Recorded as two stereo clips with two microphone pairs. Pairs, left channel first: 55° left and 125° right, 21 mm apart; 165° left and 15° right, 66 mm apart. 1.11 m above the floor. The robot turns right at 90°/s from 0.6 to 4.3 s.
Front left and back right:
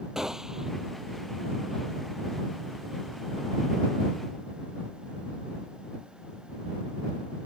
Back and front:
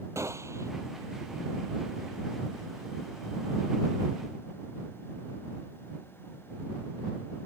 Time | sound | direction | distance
0.1 | a gunshot | 60° right | ?